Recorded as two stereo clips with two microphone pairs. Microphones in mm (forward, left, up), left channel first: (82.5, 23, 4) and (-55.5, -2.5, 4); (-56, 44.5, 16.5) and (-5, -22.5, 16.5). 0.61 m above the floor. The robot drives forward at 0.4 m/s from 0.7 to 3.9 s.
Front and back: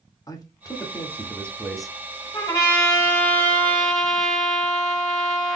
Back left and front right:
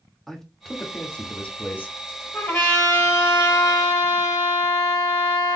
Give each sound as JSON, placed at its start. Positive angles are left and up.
{"t": 0.3, "sound": "a man speaking", "azimuth_deg": 45, "distance_m": 1.0}
{"t": 2.3, "sound": "a trumpet", "azimuth_deg": 70, "distance_m": 1.8}